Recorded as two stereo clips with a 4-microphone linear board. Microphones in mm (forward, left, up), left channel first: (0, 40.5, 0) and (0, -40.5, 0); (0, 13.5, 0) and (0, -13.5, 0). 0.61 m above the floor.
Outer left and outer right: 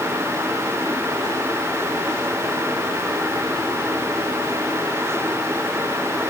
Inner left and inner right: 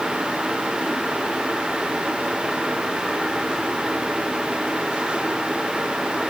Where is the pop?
No pop in this recording.